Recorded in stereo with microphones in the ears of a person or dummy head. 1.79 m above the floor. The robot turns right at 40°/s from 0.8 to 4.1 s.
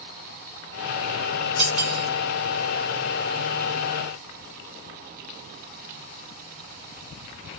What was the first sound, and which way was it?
Cutlery clinking, 45° right (ahead or behind).